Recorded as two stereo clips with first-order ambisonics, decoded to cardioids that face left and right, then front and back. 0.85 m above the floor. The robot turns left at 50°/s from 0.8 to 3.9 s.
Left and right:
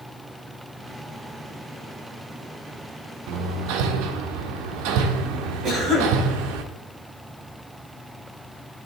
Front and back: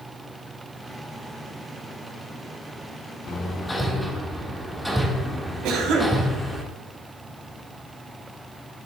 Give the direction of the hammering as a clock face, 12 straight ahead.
2 o'clock.